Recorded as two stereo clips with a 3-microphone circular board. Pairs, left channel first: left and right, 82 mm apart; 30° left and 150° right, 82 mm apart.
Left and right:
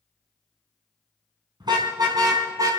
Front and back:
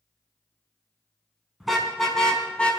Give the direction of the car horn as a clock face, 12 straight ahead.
2 o'clock.